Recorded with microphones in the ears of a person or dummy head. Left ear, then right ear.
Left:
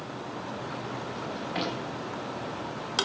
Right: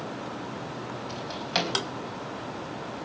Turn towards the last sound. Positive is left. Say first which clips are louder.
# right 7 dB
turn(degrees=-75)  # may be behind; listen again after turning